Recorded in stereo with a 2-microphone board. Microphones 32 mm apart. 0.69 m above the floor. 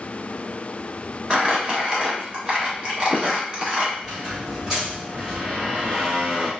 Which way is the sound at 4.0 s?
20° right (ahead or behind).